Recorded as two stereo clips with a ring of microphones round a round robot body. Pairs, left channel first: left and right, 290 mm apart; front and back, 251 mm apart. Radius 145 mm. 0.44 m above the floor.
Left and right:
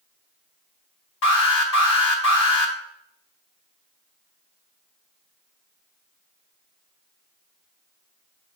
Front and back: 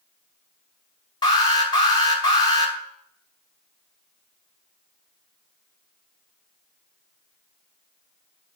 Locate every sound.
1.2 s an alarm: 70° left, 2 m